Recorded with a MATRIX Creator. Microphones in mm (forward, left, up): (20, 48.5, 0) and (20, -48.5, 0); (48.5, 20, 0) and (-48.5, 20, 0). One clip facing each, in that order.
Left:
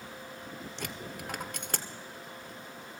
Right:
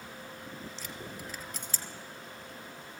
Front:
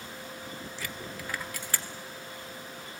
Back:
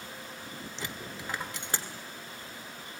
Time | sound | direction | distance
0.8 | a dropped coin | 115° left | 1.4 m